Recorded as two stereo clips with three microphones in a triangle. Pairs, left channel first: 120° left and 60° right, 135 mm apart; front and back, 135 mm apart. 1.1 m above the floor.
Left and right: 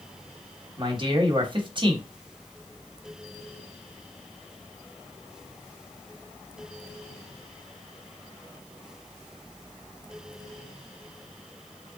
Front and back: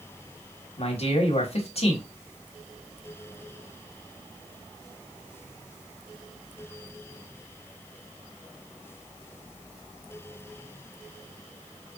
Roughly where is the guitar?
No guitar in this recording.